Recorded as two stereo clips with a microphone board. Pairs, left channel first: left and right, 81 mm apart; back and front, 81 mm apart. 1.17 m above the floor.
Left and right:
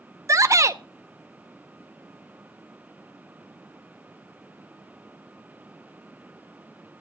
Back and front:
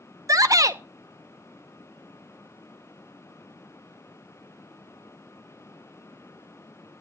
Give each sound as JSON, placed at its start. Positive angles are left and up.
{"t": 0.3, "sound": "a shout", "azimuth_deg": -45, "distance_m": 0.9}